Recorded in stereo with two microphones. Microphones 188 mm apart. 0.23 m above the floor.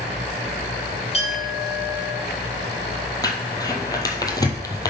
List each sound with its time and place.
1.1 s a clink: 35° left (ahead or behind), 2.5 m
3.2 s crumpling: 20° left (ahead or behind), 1.0 m